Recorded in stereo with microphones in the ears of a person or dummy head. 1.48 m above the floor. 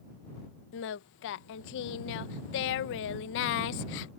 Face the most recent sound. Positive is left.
turn(degrees=50)  # may be behind; listen again after turning